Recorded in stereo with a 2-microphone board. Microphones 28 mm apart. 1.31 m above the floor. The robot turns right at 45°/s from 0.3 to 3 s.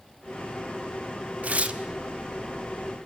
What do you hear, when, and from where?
1.4 s tearing paper: 60° right (ahead or behind), 1.4 m; by 1.8 s 45° right (ahead or behind), 1.4 m